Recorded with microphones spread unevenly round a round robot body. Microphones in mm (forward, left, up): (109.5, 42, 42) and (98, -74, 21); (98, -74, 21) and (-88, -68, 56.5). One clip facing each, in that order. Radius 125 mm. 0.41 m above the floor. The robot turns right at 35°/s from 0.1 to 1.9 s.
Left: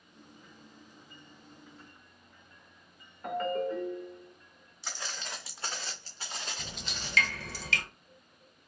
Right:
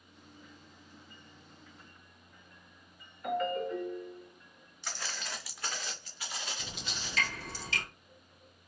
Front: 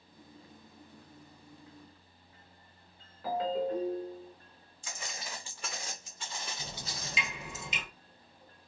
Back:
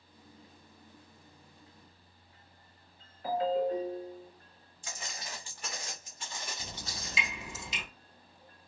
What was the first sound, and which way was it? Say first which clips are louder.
A ringtone: left 1 dB, back 2 dB; 30° left.